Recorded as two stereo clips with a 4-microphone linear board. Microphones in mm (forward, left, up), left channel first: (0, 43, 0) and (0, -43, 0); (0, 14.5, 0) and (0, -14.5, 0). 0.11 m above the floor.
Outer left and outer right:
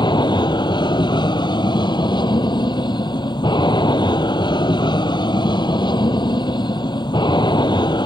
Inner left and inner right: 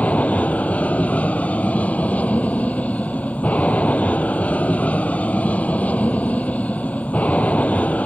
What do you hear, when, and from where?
0.0 s an aircraft: 60° left (ahead or behind)